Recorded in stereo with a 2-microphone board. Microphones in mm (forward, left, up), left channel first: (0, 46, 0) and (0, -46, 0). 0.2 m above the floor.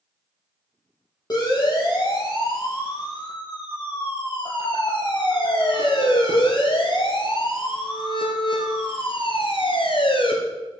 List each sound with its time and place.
1.3 s a siren: 45° left (ahead or behind), 7 m; by 10.3 s 70° left (ahead or behind), 3.5 m